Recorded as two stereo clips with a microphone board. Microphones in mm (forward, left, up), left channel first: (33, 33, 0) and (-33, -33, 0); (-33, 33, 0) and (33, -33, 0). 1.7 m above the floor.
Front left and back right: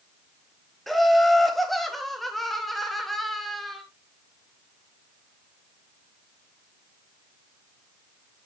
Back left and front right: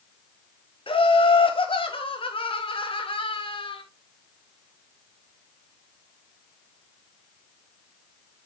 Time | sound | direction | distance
0.9 | laughter | 135° left | 1.8 m